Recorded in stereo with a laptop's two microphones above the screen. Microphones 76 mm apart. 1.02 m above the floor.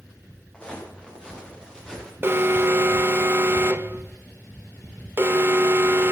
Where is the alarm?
30° right (ahead or behind), 0.9 m.